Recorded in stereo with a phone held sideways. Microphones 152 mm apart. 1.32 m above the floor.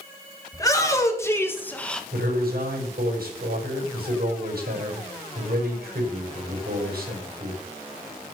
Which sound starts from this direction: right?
A man speaking, at 2.1 s.